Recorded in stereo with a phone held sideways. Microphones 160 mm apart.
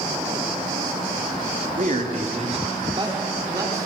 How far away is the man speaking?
About 1.2 m.